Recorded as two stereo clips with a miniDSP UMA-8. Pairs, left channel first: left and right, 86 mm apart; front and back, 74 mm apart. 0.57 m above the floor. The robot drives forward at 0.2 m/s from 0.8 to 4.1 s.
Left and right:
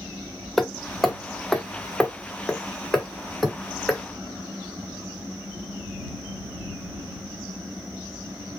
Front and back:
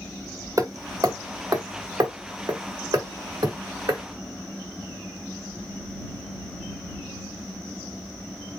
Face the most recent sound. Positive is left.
turn(degrees=175)